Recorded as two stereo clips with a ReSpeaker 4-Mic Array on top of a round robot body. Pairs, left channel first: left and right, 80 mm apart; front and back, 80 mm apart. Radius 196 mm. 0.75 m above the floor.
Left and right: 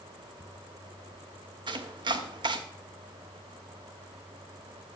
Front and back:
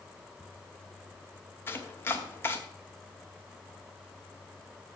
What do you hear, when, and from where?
1.7 s chopping: 60° right, 0.8 m